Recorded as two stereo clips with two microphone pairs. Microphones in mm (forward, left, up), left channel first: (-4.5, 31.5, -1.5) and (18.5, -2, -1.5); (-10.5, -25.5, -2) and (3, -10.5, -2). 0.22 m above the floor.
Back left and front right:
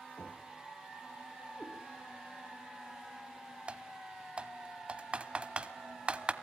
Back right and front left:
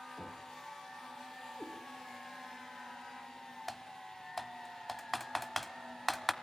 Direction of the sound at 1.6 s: 140° right.